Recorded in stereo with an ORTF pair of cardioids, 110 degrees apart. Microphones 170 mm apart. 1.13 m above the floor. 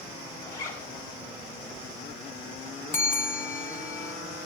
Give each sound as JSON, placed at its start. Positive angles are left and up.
{"t": 0.5, "sound": "a zipper", "azimuth_deg": 50, "distance_m": 4.0}
{"t": 2.9, "sound": "a bell", "azimuth_deg": 15, "distance_m": 1.0}